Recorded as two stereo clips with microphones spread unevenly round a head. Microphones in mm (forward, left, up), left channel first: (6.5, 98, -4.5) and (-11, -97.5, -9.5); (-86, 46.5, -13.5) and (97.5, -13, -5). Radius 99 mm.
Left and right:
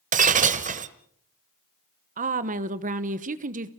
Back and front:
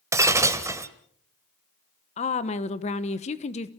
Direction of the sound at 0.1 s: 80° right.